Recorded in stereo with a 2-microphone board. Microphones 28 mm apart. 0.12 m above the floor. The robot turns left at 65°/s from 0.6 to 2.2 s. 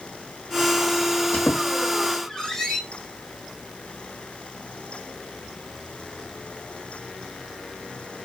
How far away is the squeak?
About 2.5 m.